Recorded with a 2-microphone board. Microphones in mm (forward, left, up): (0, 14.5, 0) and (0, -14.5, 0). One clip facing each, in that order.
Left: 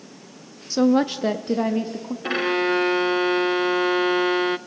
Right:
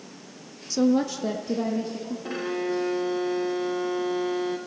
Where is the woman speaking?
30° left (ahead or behind), 0.6 m; by 2.1 s 65° left (ahead or behind), 1.2 m.